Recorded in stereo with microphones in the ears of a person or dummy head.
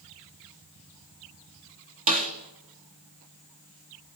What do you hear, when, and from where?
2.1 s a snare drum: 40° right (ahead or behind), 2.5 m